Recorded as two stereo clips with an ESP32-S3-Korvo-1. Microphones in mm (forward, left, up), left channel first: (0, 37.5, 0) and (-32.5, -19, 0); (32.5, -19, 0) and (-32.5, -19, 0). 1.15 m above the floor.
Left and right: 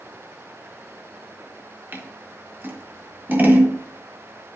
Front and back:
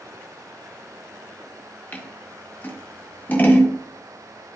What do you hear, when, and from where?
1.9 s scissors: 60° right, 1.5 m